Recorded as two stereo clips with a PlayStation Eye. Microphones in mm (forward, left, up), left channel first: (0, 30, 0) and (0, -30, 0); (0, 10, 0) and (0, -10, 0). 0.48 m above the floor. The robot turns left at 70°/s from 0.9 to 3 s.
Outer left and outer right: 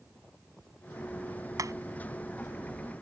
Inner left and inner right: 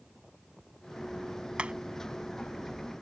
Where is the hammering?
75° right (ahead or behind).